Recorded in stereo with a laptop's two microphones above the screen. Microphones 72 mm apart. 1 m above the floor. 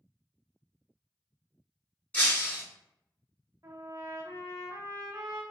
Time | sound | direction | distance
2.1 | breaking glass | 20° left (ahead or behind) | 1.2 m
3.6 | a trumpet | 50° right (ahead or behind) | 0.7 m